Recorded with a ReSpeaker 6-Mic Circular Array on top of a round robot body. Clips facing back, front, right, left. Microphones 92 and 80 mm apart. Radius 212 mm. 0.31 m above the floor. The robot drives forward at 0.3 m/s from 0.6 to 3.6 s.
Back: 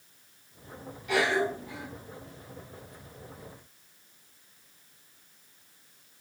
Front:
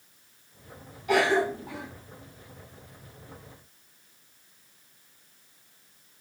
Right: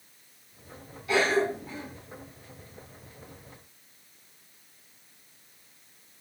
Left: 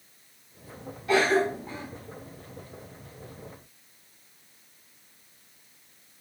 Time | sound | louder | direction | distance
1.1 | a cough | front 3 dB, left 2 dB | 45° left | 4 m